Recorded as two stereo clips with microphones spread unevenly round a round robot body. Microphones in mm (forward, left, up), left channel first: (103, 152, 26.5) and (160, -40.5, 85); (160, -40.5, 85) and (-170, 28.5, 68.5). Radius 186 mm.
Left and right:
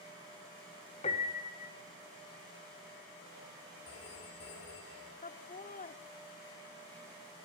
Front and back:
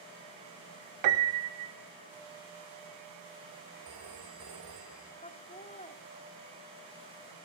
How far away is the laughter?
About 1.9 m.